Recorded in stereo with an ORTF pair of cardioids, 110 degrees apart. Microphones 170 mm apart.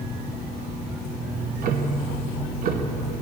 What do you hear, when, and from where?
1.3 s ticking: 60° right, 0.9 m